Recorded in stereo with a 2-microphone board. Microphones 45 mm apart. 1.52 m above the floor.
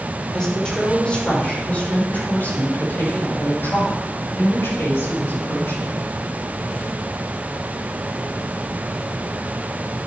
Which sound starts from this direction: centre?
A woman speaking, at 0.3 s.